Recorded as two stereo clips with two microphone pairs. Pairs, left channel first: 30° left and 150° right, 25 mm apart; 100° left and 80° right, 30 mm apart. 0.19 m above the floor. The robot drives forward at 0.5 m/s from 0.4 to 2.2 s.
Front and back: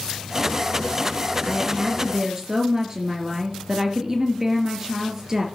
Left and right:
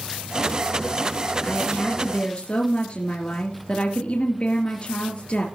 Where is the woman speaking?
140° left, 3 m; by 5.5 s 145° left, 3.5 m.